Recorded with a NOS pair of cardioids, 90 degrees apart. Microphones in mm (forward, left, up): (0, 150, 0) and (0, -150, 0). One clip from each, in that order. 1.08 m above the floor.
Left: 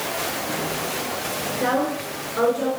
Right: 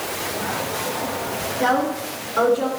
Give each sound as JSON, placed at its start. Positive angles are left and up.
{"t": 1.6, "sound": "a woman speaking", "azimuth_deg": -30, "distance_m": 3.0}